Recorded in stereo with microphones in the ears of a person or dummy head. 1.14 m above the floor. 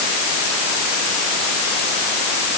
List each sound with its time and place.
Only background noise.